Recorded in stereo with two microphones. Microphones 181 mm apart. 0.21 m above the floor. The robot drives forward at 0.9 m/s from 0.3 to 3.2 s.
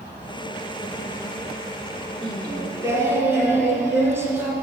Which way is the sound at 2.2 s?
25° right (ahead or behind).